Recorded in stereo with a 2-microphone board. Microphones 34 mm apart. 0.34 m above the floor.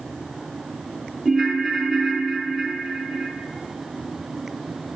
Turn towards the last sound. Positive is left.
turn(degrees=0)  # may be behind; listen again after turning